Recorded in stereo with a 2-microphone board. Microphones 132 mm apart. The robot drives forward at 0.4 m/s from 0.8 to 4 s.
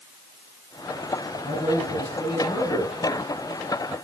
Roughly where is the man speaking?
Left.